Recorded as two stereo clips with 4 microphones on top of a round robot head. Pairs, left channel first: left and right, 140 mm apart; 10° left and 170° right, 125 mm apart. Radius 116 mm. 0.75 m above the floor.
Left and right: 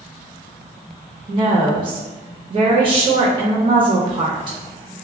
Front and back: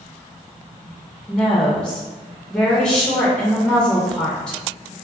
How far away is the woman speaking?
About 0.7 m.